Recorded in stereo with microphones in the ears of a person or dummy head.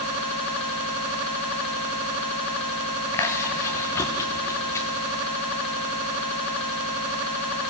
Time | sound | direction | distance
3.1 | chewing | 15° left (ahead or behind) | 1.3 m